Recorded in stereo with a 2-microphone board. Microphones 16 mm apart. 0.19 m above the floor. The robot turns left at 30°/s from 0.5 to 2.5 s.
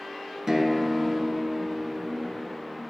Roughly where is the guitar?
Ahead right.